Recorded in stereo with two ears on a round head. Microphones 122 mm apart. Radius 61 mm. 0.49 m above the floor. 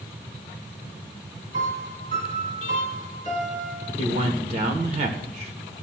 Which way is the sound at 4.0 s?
50° right (ahead or behind).